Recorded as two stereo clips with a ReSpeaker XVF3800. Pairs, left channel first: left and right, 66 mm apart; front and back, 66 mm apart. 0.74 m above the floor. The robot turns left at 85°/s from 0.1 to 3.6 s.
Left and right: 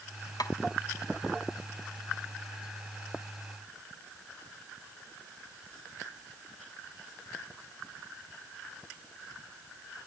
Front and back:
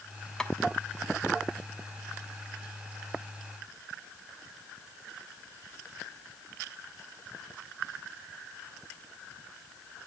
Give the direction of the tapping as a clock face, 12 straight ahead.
9 o'clock.